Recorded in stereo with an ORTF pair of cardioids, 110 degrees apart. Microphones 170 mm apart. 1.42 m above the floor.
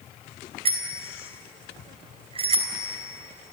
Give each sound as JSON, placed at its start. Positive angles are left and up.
{"t": 0.7, "sound": "a bicycle bell", "azimuth_deg": -35, "distance_m": 4.5}